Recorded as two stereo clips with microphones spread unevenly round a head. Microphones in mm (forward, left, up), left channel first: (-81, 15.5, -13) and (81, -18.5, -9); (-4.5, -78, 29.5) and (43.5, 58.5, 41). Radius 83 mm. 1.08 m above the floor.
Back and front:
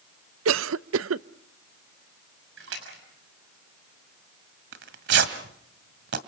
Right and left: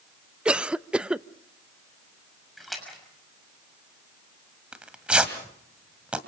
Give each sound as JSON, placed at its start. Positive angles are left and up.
{"t": 0.5, "sound": "a cough", "azimuth_deg": -15, "distance_m": 0.6}
{"t": 2.6, "sound": "a splash", "azimuth_deg": -20, "distance_m": 6.0}
{"t": 4.7, "sound": "tearing paper", "azimuth_deg": -10, "distance_m": 1.9}